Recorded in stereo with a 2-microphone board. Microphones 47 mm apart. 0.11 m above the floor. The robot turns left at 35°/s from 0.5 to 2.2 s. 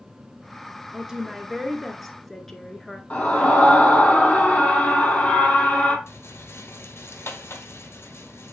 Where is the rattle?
65° left (ahead or behind), 0.9 m.